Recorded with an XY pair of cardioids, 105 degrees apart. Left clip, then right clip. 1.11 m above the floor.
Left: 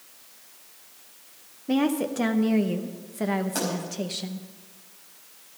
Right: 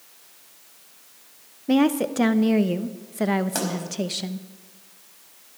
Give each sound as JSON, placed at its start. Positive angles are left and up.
{"t": 1.7, "sound": "a woman speaking", "azimuth_deg": -30, "distance_m": 0.7}
{"t": 3.5, "sound": "a pop", "azimuth_deg": -40, "distance_m": 4.5}